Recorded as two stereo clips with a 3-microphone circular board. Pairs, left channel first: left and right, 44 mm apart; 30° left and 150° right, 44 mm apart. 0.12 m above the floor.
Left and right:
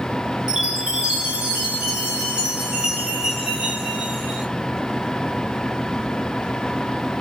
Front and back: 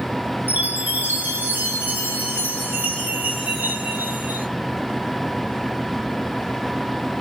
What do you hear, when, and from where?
0.5 s a chime: 155° right, 1.3 m